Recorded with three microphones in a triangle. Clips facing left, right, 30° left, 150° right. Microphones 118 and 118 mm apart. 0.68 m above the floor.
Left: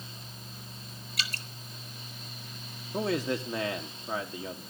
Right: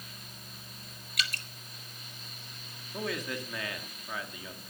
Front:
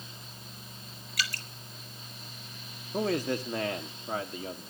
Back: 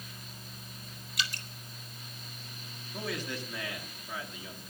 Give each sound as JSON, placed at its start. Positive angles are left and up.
{"t": 1.2, "sound": "dripping", "azimuth_deg": 145, "distance_m": 2.0}
{"t": 2.9, "sound": "a man speaking", "azimuth_deg": 40, "distance_m": 1.3}